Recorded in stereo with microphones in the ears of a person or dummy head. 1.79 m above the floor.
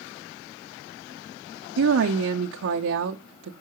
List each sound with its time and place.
1.8 s a woman speaking: 65° right (ahead or behind), 0.9 m